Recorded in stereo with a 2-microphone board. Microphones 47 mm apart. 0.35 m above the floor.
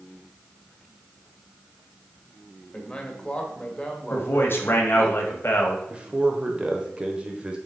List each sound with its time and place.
2.7 s a man speaking: 20° left (ahead or behind), 1.2 m
4.1 s a man speaking: 55° left (ahead or behind), 1.4 m
5.9 s a man speaking: 20° right (ahead or behind), 1.0 m